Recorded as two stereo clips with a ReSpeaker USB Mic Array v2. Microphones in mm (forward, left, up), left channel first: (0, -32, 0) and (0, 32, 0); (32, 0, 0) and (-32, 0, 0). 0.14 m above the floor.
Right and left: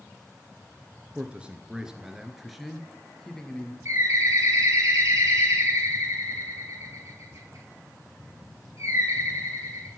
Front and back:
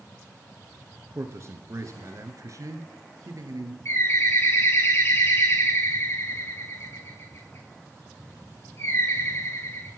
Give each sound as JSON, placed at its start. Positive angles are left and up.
{"t": 1.1, "sound": "a man speaking", "azimuth_deg": 150, "distance_m": 2.5}
{"t": 3.9, "sound": "a bird", "azimuth_deg": 45, "distance_m": 6.0}